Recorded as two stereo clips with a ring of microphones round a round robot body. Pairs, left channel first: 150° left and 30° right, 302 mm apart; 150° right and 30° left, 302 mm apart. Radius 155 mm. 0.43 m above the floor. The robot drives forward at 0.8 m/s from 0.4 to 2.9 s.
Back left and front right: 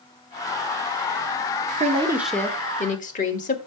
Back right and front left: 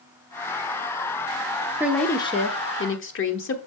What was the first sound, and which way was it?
A woman speaking, 45° right.